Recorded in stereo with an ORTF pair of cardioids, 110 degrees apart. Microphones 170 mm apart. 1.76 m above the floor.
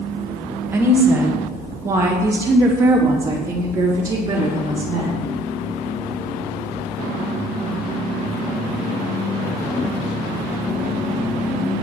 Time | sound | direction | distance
0.7 | a woman speaking | 15° right | 1.9 m